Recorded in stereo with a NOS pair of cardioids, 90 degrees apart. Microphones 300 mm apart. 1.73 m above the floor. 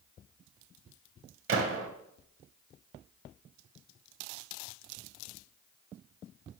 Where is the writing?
No writing in this recording.